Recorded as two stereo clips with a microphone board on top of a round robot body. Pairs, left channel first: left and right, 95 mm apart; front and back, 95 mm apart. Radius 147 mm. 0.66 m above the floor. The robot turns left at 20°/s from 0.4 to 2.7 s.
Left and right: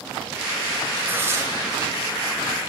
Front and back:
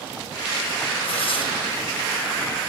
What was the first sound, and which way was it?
Tearing paper, 25° right.